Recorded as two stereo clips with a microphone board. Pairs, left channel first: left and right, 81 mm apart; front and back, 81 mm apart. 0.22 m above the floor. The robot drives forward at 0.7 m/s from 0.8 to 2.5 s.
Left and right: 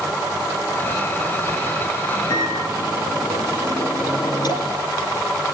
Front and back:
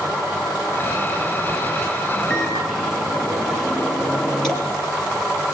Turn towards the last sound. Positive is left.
turn(degrees=85)